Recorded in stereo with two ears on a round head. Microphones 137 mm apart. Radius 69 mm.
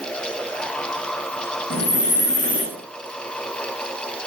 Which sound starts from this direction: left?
Breathing, at 1.7 s.